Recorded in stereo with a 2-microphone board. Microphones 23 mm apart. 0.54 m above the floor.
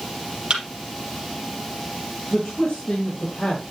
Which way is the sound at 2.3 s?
35° left (ahead or behind).